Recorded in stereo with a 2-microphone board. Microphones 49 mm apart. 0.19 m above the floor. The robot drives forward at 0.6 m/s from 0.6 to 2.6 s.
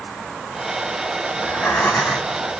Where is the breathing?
55° left (ahead or behind), 2.5 m; by 2.4 s 45° left (ahead or behind), 3 m.